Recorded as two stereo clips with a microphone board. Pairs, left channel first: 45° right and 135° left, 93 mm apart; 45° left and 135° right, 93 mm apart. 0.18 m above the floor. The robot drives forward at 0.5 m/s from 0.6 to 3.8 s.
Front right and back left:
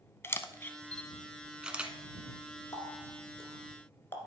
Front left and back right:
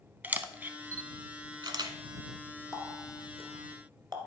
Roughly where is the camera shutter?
Right.